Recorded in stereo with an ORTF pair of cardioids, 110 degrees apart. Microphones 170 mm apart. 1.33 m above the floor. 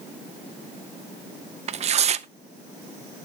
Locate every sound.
1.7 s tearing paper: 40° right, 0.6 m